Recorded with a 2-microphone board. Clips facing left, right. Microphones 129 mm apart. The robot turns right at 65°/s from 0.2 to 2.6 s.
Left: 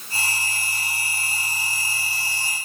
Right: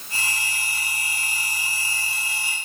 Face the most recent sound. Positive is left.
No sound to turn to.